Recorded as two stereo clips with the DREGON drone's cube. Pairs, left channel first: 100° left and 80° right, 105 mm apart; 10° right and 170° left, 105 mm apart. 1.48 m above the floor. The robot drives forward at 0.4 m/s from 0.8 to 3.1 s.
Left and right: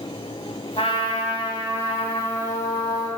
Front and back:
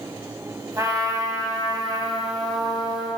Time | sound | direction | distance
0.8 | a trumpet | 115° left | 2.5 m